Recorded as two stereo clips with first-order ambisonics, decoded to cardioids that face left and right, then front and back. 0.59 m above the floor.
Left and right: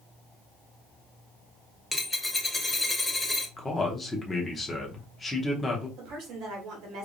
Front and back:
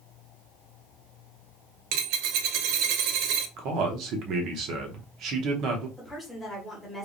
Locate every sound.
1.9 s a dropped coin: 170° left, 0.6 m
3.6 s a man speaking: 165° left, 0.8 m
6.0 s a woman speaking: 85° right, 1.5 m